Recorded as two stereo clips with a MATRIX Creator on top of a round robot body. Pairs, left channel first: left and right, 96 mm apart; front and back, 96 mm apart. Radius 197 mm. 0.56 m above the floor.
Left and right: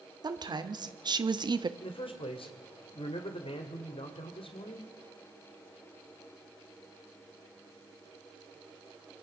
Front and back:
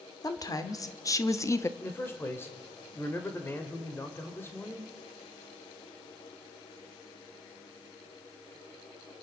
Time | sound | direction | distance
0.2 | a woman speaking | 50° right | 2 m
1.8 | a man speaking | 65° left | 2.5 m